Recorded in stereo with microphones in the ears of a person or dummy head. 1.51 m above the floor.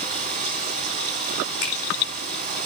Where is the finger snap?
80° left, 5 m.